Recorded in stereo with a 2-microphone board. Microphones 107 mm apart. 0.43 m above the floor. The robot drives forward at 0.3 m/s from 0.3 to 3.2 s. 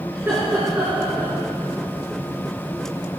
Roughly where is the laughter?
Right.